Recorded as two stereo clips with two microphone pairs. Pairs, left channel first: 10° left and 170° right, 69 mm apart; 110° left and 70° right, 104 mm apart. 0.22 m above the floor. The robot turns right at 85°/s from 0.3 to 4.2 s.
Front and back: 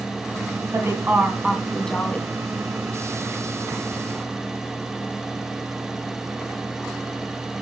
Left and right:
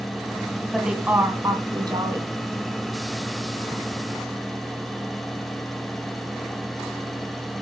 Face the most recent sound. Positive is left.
turn(degrees=130)